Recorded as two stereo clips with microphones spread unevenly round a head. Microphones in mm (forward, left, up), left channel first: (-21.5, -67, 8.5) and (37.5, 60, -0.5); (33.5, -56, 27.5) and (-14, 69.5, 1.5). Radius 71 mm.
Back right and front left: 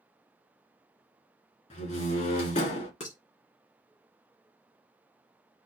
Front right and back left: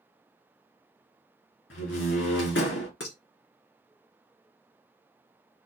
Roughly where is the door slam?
Right.